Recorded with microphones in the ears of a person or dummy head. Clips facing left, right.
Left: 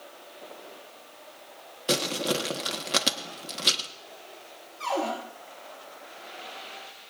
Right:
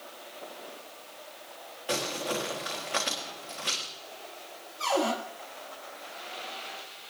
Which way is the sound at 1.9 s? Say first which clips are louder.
Left 4 dB; 55° left (ahead or behind).